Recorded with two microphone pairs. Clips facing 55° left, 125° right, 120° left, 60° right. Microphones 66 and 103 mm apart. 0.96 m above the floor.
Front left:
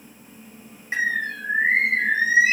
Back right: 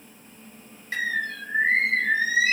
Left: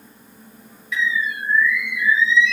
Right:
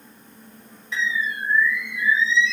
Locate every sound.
0.9 s a bird: 10° right, 1.0 m